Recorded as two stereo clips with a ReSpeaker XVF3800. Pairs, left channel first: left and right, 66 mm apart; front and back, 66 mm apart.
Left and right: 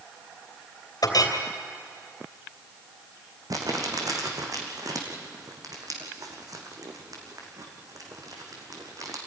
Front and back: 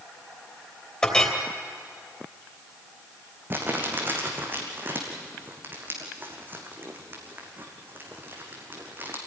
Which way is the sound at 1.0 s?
75° left.